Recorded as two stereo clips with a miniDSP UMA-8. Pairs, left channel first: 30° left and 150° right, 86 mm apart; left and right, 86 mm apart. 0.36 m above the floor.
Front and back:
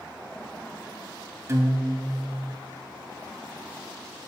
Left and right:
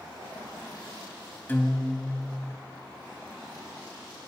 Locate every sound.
1.5 s a guitar: 155° left, 0.7 m